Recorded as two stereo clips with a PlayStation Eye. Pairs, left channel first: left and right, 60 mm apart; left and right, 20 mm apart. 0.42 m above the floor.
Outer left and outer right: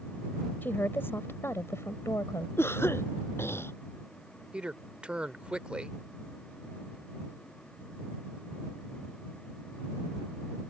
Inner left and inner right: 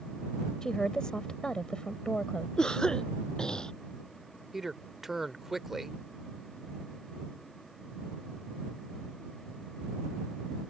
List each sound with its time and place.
0.6 s a woman speaking: 35° left (ahead or behind); by 2.5 s 55° left (ahead or behind)
2.6 s a cough: 45° left (ahead or behind)
4.5 s a man speaking: 20° right (ahead or behind)